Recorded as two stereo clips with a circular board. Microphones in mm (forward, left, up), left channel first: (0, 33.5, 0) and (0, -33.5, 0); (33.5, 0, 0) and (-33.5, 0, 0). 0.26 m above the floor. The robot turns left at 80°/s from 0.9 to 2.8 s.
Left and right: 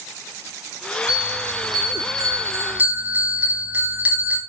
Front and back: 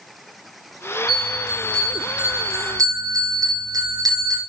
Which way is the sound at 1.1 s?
15° right.